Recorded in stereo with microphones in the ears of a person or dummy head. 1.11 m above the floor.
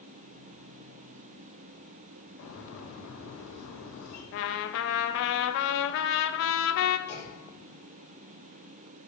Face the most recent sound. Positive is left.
turn(degrees=40)  # may be behind; listen again after turning